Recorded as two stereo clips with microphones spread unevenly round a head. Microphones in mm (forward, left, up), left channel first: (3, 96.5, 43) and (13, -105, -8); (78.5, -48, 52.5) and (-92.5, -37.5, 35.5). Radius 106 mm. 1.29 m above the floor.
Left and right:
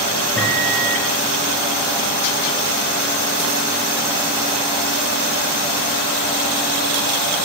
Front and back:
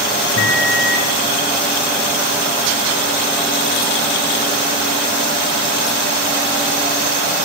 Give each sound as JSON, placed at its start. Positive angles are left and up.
{"t": 0.4, "sound": "a microwave", "azimuth_deg": 5, "distance_m": 2.5}